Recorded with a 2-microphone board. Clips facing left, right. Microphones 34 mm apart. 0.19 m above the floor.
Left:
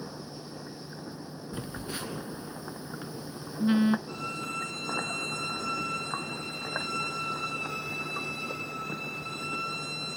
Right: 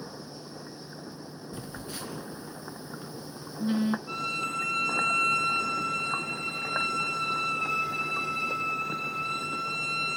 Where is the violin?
75° right (ahead or behind), 2.5 m.